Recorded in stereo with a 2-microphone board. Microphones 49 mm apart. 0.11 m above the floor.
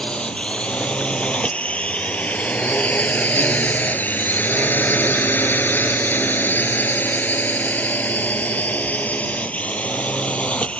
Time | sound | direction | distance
0.0 | a drone | 20° left (ahead or behind) | ?